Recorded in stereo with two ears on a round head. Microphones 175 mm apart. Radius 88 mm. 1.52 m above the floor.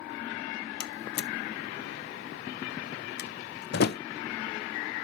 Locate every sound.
0.8 s a door slam: 55° left (ahead or behind), 0.6 m